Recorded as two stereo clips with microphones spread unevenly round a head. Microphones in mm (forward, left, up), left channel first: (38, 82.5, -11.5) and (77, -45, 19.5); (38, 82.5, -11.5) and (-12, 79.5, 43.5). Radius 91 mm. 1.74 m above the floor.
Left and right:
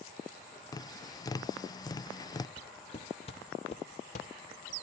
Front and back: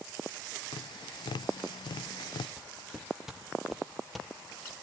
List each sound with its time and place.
0.7 s tapping: 45° left, 0.6 m
2.6 s footsteps: 175° left, 3 m; by 4.7 s 145° left, 2.5 m